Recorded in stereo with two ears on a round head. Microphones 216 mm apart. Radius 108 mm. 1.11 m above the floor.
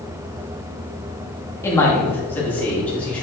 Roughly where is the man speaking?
Centre.